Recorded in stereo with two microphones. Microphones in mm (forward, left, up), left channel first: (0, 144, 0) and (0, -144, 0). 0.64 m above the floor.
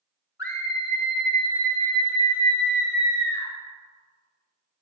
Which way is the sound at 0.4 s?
45° left (ahead or behind).